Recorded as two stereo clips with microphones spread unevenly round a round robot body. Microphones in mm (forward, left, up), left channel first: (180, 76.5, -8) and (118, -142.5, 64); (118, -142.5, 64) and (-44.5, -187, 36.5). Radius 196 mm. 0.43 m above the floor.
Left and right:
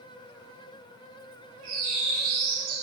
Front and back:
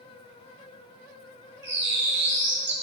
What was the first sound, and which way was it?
A bird, 170° right.